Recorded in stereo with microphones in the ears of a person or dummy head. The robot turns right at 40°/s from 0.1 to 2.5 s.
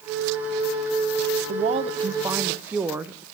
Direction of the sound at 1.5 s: 50° right.